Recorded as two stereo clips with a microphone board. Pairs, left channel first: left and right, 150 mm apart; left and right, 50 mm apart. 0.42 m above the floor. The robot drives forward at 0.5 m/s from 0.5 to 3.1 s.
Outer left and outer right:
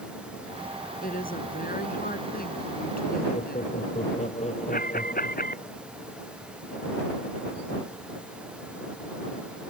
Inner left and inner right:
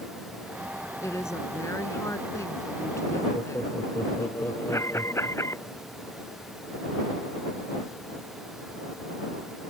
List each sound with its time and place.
1.0 s a woman speaking: 70° left (ahead or behind); by 3.8 s 75° left (ahead or behind)
3.3 s laughter: 50° left (ahead or behind)
4.7 s an alarm: 70° left (ahead or behind)